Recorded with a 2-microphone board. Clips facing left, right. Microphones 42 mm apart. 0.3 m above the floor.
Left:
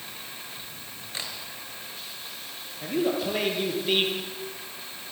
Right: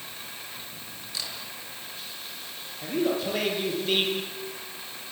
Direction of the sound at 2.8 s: 10° left (ahead or behind).